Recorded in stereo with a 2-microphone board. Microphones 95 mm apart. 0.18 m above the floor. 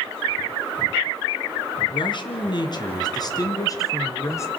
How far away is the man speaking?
About 3 m.